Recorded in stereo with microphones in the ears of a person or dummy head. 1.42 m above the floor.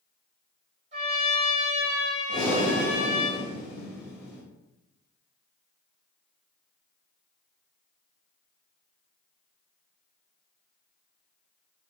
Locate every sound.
0.9 s a trumpet: 40° right (ahead or behind), 1.7 m
2.3 s breathing: 10° left (ahead or behind), 1.6 m